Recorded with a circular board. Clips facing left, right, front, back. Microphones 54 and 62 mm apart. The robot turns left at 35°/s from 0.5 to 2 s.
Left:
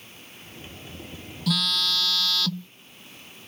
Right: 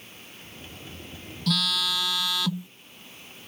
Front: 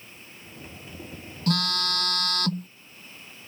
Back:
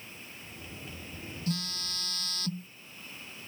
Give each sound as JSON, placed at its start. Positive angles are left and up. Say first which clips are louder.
{"t": 1.5, "sound": "a phone buzzing", "louder": "left 1 dB, front 10 dB", "azimuth_deg": 5}